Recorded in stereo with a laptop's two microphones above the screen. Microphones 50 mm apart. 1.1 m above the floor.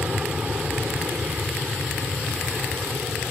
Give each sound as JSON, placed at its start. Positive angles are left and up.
{"t": 0.0, "sound": "an aircraft", "side_deg": -30}